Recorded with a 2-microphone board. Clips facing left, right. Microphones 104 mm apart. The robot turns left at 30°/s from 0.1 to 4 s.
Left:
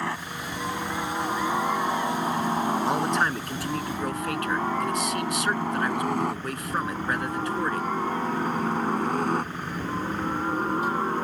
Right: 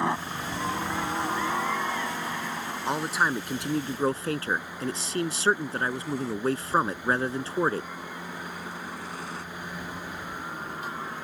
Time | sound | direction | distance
0.0 | a helicopter | 20° right (ahead or behind) | ?
2.9 | a man speaking | 5° left | ?